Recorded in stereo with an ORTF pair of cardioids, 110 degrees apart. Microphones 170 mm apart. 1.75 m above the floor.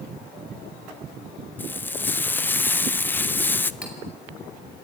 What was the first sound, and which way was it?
Frying, 10° left.